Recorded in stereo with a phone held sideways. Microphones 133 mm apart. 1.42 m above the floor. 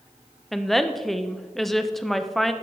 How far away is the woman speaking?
About 0.6 m.